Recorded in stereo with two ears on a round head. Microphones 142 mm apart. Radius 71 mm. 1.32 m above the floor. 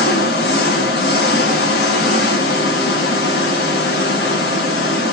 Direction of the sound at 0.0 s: 70° left (ahead or behind).